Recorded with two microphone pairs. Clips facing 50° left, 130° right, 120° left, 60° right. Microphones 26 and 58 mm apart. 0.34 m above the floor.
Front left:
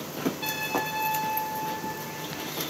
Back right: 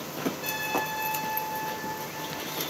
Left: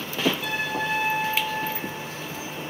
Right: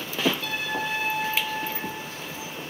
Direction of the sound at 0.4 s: 45° left.